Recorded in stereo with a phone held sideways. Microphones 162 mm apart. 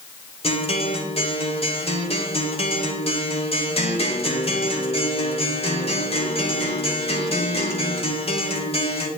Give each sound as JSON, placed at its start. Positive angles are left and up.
{"t": 0.4, "sound": "a guitar", "side_deg": 40, "distance_m": 1.3}